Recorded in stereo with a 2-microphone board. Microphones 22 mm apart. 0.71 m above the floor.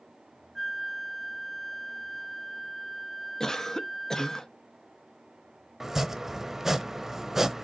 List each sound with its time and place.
0.6 s a flute: 5° left (ahead or behind), 0.5 m
3.4 s a cough: 20° left (ahead or behind), 0.7 m
5.8 s chopping: 15° right (ahead or behind), 0.7 m